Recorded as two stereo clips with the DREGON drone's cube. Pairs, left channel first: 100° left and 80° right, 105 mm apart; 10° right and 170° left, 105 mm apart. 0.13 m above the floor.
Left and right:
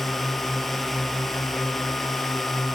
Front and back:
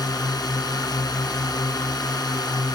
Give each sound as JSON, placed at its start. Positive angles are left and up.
{"t": 0.0, "sound": "a drone", "azimuth_deg": 10}